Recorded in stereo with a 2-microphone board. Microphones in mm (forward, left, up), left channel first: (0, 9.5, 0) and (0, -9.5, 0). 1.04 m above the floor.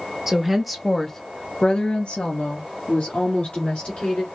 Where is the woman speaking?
10° right (ahead or behind), 1.2 m; by 4.2 s 65° left (ahead or behind), 2.5 m.